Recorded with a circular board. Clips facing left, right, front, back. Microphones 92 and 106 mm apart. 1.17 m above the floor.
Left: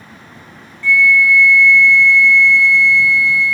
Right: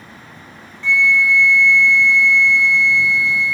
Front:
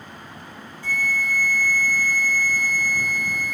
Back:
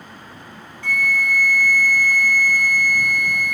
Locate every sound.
0.8 s a flute: 160° right